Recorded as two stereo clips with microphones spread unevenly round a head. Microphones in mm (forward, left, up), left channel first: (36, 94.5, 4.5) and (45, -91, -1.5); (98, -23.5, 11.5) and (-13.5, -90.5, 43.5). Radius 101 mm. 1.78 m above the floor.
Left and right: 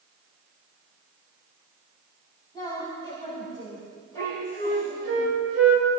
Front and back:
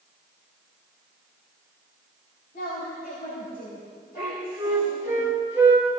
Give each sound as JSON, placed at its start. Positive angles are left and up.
{"t": 2.5, "sound": "a woman speaking", "azimuth_deg": 25, "distance_m": 6.0}
{"t": 4.2, "sound": "a flute", "azimuth_deg": -80, "distance_m": 4.5}